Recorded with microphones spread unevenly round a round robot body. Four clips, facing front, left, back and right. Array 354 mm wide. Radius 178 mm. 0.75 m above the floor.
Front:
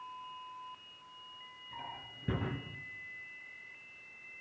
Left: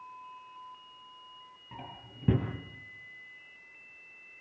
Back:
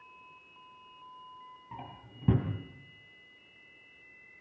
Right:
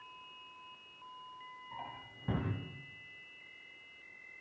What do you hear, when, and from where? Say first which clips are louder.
1.7 s a drawer: left 1 dB, front 1 dB; 135° left, 4.5 m